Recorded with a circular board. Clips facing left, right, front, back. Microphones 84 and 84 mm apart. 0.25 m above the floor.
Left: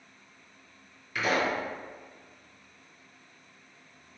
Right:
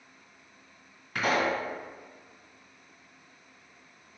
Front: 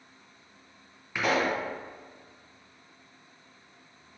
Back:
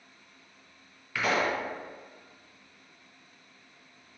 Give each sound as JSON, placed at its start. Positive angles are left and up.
{"t": 1.1, "sound": "a pop", "azimuth_deg": -65, "distance_m": 1.7}